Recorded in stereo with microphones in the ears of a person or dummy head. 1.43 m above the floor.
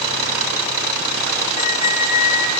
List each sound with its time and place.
1.6 s a squeak: 40° left (ahead or behind), 5.5 m